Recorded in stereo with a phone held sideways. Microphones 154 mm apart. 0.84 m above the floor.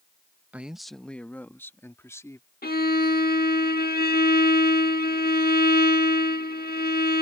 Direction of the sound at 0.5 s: 10° right (ahead or behind).